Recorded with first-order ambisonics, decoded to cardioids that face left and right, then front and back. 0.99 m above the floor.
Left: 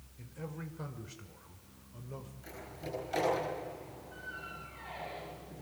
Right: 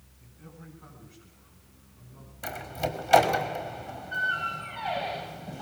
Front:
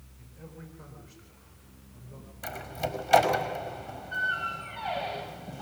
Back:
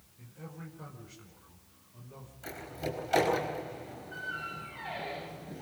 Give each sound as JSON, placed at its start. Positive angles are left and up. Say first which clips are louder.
{"t": 0.2, "sound": "a man speaking", "louder": "left 7 dB, even", "azimuth_deg": 90, "distance_m": 5.0}
{"t": 2.4, "sound": "a door slam", "louder": "right 15 dB, front 5 dB", "azimuth_deg": -60, "distance_m": 5.0}